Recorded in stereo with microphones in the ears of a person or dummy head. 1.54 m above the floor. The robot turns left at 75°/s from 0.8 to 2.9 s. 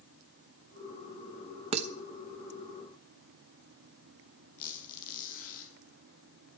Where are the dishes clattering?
30° right (ahead or behind), 1.2 m; by 1.9 s 45° right (ahead or behind), 1.2 m.